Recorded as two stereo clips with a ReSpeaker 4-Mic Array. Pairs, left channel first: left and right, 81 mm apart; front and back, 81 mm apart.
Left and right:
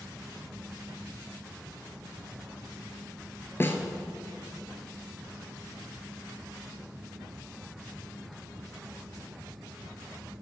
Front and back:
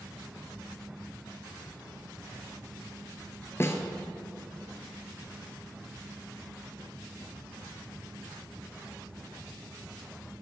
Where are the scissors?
No scissors in this recording.